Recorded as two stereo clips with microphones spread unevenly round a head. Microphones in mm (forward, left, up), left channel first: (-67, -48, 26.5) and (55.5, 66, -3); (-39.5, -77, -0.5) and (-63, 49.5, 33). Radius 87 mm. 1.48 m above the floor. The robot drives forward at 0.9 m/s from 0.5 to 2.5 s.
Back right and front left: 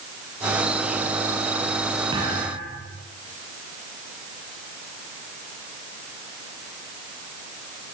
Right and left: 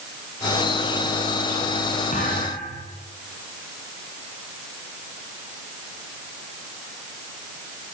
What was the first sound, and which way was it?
A thud, 25° right.